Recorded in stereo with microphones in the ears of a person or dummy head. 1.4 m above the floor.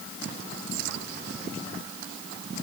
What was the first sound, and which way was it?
Only background noise.